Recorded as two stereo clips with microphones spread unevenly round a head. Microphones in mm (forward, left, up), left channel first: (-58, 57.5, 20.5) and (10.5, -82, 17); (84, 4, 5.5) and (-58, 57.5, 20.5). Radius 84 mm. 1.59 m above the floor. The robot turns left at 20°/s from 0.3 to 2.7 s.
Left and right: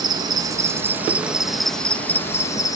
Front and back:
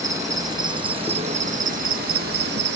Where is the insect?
130° right; by 2.8 s 175° right.